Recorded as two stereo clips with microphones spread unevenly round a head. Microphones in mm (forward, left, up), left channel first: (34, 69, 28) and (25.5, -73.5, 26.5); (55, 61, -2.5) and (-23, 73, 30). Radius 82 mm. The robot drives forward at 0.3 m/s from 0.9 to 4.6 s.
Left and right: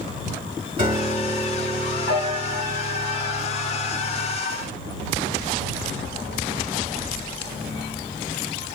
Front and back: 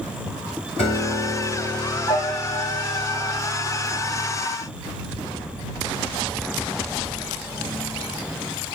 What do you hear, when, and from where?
0.8 s a piano: 35° right, 2 m; by 4.4 s 65° right, 1.5 m